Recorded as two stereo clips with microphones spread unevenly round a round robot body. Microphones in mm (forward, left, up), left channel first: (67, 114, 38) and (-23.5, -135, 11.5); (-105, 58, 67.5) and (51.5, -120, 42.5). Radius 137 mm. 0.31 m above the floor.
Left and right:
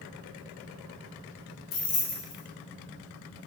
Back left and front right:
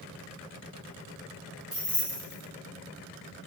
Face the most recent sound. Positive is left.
turn(degrees=25)